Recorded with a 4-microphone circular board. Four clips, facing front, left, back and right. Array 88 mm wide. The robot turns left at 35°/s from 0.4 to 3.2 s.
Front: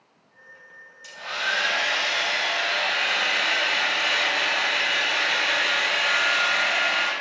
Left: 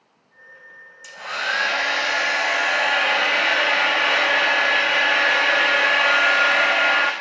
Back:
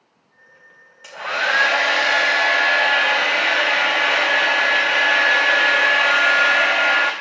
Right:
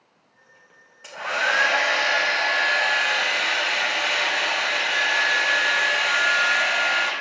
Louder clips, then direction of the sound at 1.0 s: Right 2 dB, back 7 dB; 145° right.